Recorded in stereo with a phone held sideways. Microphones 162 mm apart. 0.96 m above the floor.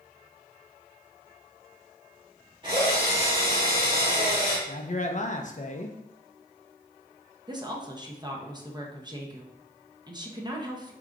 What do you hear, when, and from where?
2.6 s a drill: 30° right (ahead or behind), 1.8 m
4.7 s a man speaking: 50° left (ahead or behind), 0.5 m
7.5 s a woman speaking: 25° right (ahead or behind), 0.7 m